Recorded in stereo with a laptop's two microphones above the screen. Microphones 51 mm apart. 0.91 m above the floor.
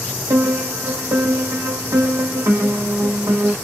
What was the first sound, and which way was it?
A piano, 70° right (ahead or behind).